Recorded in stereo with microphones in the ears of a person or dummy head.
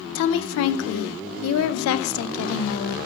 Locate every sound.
0.1 s a woman speaking: 85° left, 0.6 m